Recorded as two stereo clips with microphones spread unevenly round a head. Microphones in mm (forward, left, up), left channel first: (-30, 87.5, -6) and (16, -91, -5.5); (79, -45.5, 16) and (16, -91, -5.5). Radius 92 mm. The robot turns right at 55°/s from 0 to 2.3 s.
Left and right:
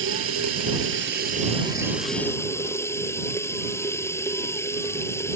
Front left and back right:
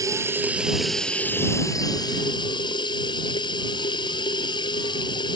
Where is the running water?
100° right; by 5.4 s 30° left.